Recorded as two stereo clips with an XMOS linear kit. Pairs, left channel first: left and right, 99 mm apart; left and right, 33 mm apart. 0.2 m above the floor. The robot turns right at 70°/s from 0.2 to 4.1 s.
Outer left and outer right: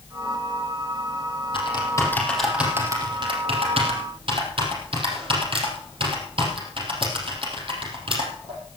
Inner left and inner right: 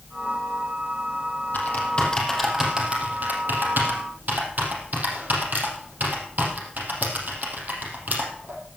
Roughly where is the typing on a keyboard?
Left.